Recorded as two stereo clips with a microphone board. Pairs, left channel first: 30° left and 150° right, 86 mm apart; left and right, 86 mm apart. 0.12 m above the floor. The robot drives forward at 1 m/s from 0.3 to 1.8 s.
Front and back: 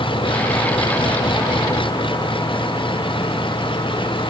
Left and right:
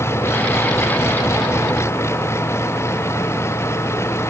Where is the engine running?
30° left.